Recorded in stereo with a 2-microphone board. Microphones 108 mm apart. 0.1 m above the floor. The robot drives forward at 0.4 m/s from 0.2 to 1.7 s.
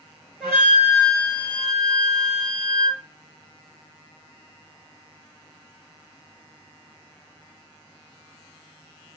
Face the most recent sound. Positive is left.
turn(degrees=0)  # may be behind; listen again after turning